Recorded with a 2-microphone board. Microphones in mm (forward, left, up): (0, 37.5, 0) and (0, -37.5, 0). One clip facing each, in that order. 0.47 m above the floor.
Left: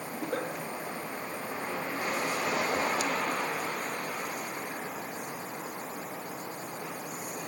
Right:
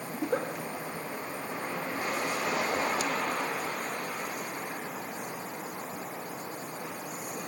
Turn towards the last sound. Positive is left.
turn(degrees=-20)  # may be behind; listen again after turning